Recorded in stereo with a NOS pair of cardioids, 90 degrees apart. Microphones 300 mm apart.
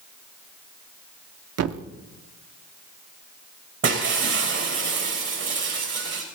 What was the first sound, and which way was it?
A thud, 60° right.